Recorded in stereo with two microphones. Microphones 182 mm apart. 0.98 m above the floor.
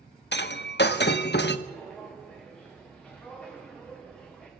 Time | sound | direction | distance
0.3 | breaking glass | 75° left (ahead or behind) | 0.7 m
1.7 | footsteps | 5° left (ahead or behind) | 4 m